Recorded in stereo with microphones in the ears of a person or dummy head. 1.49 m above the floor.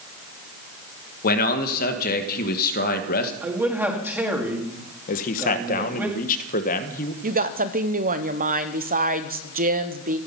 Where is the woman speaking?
40° right (ahead or behind), 0.9 m.